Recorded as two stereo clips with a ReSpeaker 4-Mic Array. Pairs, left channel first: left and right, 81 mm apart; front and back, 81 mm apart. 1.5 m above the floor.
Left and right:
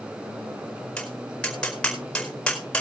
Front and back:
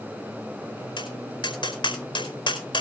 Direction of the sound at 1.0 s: 10° left.